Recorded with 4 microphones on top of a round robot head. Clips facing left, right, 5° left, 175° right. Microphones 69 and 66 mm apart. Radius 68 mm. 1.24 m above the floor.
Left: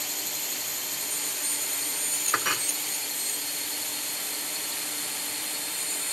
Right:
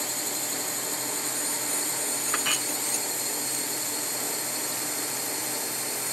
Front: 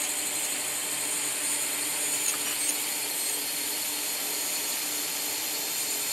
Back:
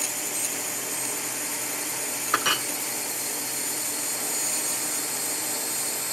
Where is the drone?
105° right; by 6.1 s 145° right.